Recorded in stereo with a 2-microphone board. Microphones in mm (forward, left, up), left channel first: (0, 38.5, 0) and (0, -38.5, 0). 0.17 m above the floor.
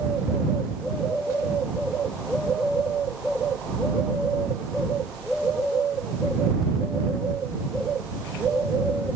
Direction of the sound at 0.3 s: 25° right (ahead or behind).